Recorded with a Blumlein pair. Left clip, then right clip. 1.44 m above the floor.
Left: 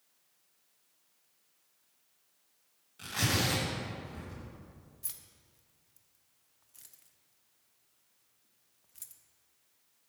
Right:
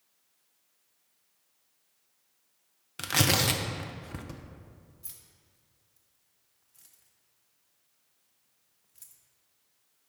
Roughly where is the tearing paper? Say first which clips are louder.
Right 6 dB; ahead right.